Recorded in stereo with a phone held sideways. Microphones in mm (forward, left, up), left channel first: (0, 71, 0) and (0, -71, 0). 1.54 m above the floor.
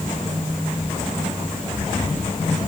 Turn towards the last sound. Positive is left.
No sound to turn to.